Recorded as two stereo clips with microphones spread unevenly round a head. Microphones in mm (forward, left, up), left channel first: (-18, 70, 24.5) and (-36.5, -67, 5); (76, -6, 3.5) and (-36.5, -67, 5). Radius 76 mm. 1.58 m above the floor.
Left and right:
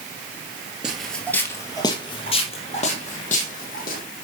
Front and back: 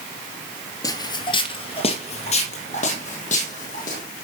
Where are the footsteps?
5° right, 1.7 m; by 4.0 s 60° left, 3.5 m.